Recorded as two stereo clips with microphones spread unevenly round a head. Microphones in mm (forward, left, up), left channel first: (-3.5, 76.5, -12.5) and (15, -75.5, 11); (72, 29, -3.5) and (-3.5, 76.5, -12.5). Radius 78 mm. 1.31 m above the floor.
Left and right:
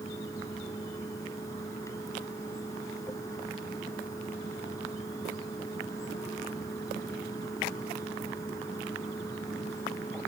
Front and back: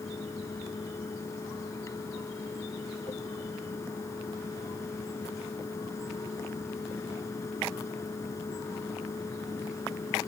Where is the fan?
25° left.